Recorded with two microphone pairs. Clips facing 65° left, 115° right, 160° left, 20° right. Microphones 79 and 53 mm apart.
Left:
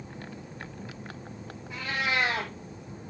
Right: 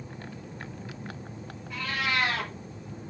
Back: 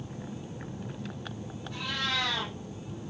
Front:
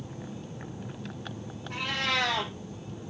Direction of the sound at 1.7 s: 5° right.